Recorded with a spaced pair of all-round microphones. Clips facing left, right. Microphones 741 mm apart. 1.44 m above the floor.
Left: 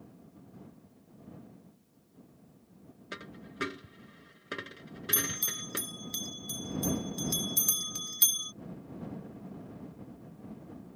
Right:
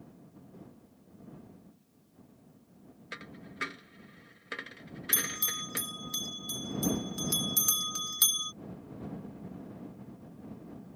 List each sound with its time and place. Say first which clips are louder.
3.1 s a dropped coin: left 2 dB; 65° left (ahead or behind)
5.1 s a bell: left 4 dB; 45° right (ahead or behind)